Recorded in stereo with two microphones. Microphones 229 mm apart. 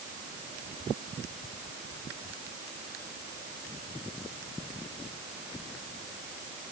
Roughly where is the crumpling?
I don't hear crumpling.